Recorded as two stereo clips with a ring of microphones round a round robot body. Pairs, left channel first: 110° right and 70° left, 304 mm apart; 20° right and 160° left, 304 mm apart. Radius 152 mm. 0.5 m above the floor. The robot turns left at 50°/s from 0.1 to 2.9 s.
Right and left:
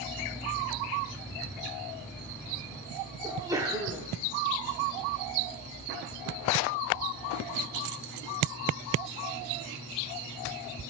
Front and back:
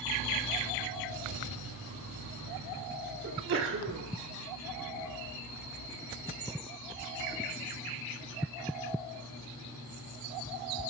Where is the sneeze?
140° left, 0.8 m.